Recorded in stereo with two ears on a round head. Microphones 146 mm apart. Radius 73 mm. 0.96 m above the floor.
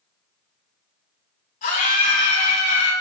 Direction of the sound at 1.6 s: 55° left (ahead or behind).